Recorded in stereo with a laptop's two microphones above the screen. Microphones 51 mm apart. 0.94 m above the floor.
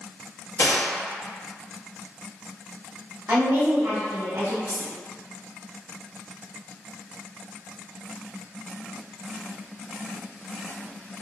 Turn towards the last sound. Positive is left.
turn(degrees=-50)  # may be behind; listen again after turning